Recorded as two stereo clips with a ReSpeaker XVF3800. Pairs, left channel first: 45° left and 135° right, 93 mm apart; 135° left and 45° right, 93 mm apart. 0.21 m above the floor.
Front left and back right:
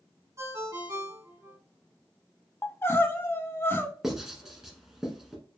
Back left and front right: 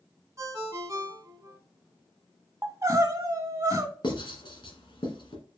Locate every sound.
0.4 s a ringtone: 90° right, 1.1 m
2.6 s crying: 10° right, 0.7 m
4.0 s writing: 140° left, 1.6 m